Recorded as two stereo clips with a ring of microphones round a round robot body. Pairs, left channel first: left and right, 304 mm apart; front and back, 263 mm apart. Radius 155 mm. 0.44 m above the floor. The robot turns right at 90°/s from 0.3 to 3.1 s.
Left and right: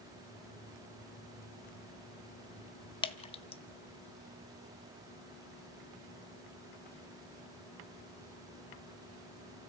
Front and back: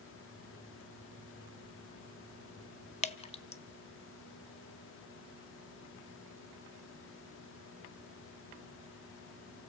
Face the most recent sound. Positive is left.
turn(degrees=40)